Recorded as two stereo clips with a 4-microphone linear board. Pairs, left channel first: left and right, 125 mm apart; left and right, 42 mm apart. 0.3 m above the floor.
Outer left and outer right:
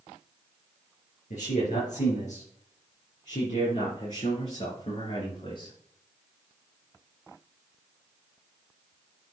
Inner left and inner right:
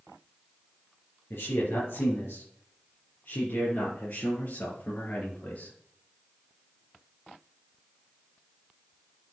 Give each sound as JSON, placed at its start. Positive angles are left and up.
{"t": 1.3, "sound": "a man speaking", "side_deg": 75, "distance_m": 5.0}